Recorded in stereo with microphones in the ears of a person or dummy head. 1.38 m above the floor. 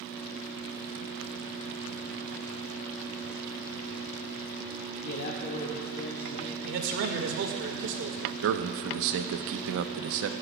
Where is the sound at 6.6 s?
65° right (ahead or behind), 1.8 m.